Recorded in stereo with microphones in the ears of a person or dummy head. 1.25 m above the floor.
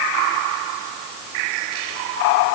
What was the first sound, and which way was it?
Only background noise.